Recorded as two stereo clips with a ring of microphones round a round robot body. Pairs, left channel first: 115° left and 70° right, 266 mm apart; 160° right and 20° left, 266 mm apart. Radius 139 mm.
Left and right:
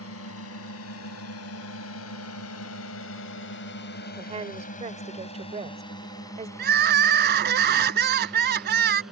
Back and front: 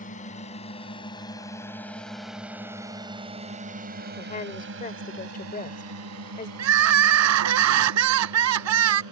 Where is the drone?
145° left; by 9.1 s 20° left.